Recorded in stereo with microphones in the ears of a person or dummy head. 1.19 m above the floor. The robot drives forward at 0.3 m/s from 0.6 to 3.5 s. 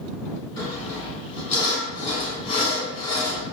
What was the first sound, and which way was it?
Sawing, 25° left (ahead or behind).